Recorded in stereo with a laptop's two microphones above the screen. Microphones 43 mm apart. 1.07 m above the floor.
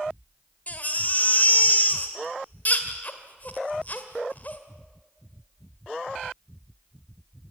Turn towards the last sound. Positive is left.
turn(degrees=40)  # may be behind; listen again after turning